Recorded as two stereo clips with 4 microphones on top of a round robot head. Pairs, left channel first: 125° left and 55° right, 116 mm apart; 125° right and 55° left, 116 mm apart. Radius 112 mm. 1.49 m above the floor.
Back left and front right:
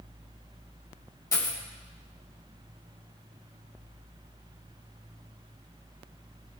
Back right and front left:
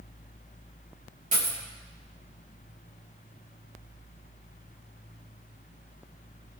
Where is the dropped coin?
65° left, 4.5 m.